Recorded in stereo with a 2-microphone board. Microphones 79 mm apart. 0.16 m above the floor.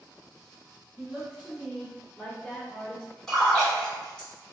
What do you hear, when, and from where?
1.0 s a woman speaking: 20° right (ahead or behind), 1.3 m; by 3.2 s 30° left (ahead or behind), 1.1 m
3.3 s a splash: 10° left (ahead or behind), 1.6 m